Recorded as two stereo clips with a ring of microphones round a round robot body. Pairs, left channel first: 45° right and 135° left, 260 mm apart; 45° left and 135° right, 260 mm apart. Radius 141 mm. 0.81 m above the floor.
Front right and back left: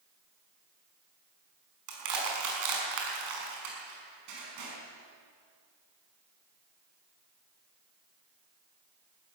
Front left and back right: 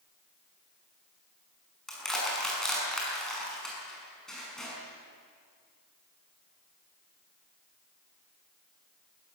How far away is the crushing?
About 5.5 m.